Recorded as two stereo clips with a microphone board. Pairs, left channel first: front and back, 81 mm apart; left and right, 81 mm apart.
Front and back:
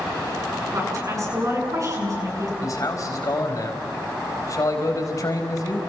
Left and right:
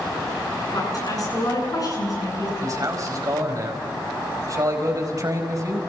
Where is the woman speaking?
130° left, 9 m.